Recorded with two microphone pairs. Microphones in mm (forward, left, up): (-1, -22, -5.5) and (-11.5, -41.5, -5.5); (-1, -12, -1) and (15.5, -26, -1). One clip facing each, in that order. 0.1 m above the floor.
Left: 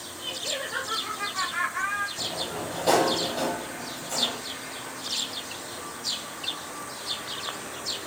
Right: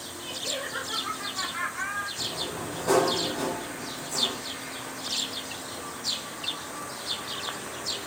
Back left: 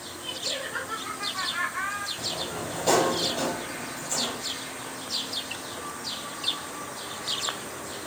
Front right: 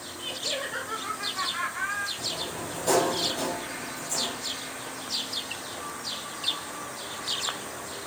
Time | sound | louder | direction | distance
0.2 | laughter | left 1 dB, front right 1 dB | 5° right | 2.5 m
2.2 | a sliding door | left 1 dB, back left 1 dB | 70° left | 3 m